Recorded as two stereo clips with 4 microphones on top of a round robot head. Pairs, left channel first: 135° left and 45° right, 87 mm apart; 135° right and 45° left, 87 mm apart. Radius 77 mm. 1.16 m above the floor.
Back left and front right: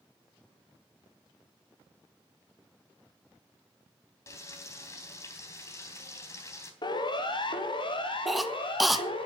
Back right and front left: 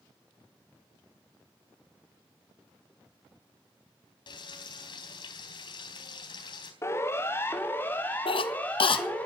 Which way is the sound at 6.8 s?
165° left.